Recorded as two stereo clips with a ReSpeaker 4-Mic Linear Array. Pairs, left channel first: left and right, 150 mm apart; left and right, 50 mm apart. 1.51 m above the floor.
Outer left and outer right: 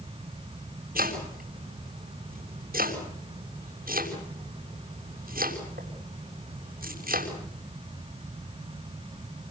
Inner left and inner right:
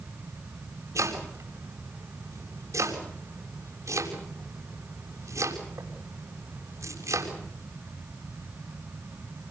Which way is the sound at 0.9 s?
80° right.